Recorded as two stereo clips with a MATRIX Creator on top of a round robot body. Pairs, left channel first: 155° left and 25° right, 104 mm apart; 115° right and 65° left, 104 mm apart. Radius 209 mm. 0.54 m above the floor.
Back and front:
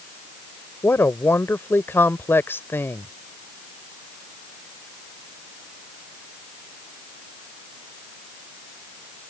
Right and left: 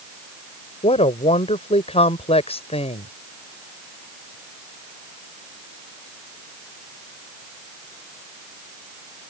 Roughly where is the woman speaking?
Behind right.